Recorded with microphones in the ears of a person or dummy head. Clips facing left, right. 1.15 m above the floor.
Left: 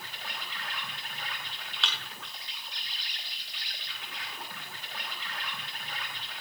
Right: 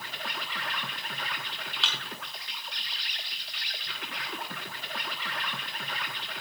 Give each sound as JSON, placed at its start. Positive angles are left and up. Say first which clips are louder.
{"t": 0.0, "sound": "an insect", "louder": "right 4 dB", "side_deg": -50, "distance_m": 1.5}
{"t": 1.8, "sound": "a thud", "louder": "even", "side_deg": -10, "distance_m": 2.5}